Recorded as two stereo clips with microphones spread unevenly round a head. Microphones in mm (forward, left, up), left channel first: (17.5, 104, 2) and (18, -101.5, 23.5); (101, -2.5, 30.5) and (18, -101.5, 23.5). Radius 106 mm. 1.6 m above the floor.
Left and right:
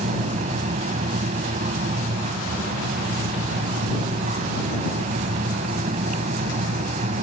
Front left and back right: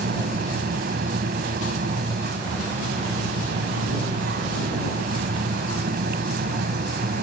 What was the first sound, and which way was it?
A fan, 150° right.